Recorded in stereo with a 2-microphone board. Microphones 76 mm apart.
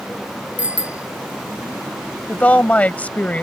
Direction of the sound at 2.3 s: 20° left (ahead or behind).